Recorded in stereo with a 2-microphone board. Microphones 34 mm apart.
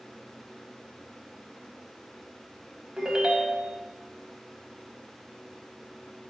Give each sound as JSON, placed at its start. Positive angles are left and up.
{"t": 3.0, "sound": "a ringtone", "side_deg": -25, "distance_m": 0.6}